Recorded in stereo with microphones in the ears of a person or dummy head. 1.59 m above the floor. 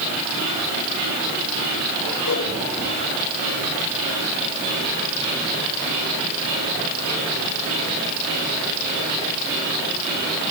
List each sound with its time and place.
2.2 s a whoosh: 80° left, 5 m